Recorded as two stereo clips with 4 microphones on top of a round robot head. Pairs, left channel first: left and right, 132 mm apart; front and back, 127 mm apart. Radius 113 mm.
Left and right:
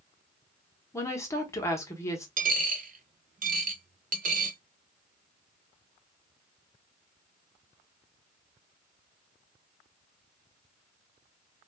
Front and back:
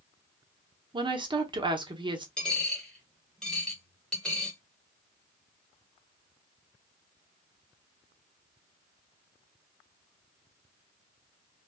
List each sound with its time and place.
0.9 s a woman speaking: 150° left, 1.1 m
2.4 s a dropped coin: 85° right, 1.0 m